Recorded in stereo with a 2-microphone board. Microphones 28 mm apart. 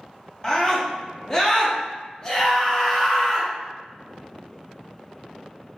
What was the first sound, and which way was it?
A scream, 20° left (ahead or behind).